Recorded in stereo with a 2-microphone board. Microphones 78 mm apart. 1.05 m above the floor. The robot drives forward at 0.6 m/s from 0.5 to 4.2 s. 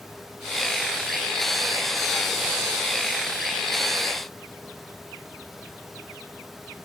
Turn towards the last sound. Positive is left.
No sound to turn to.